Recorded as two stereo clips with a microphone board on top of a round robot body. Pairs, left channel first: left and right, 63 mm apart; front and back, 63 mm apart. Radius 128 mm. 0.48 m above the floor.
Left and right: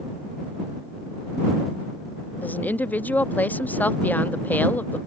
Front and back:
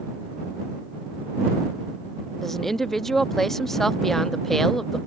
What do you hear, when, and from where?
2.4 s a woman speaking: 80° left